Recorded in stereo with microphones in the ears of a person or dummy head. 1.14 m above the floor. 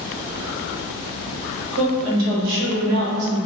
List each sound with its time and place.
1.7 s a woman speaking: 75° right (ahead or behind), 1.1 m; by 3.5 s 35° right (ahead or behind), 0.8 m